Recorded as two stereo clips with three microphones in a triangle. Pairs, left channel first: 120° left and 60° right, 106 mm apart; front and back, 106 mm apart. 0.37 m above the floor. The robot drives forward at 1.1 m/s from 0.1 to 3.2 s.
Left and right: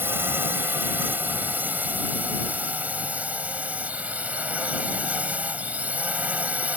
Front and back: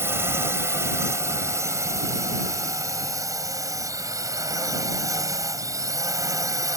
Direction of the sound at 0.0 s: 120° right.